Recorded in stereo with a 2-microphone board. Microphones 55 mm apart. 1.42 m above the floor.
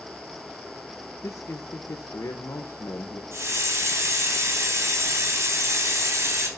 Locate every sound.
1.2 s a man speaking: 75° left (ahead or behind), 1.3 m
3.3 s a hiss: 50° right (ahead or behind), 4 m